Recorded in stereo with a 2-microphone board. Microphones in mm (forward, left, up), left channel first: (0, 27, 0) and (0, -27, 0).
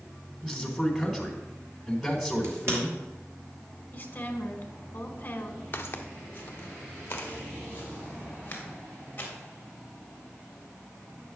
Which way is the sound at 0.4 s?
5° right (ahead or behind).